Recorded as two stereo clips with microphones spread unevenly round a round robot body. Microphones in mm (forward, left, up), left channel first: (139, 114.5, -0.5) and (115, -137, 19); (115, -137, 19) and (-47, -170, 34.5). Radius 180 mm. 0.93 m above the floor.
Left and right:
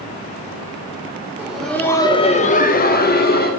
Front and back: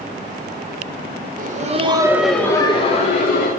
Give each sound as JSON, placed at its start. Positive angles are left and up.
{"t": 1.4, "sound": "laughter", "azimuth_deg": 175, "distance_m": 0.8}